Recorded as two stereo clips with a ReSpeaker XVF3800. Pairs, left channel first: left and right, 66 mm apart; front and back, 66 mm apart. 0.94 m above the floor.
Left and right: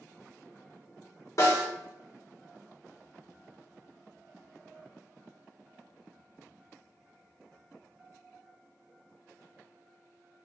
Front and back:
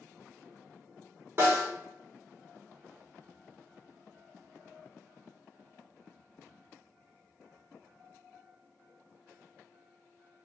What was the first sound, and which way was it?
A snare drum, 125° left.